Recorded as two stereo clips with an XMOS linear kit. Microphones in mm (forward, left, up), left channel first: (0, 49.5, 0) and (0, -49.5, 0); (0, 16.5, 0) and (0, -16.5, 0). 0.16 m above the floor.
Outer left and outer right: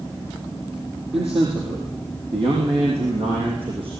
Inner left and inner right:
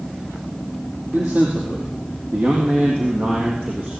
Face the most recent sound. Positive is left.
turn(degrees=-65)  # may be behind; listen again after turning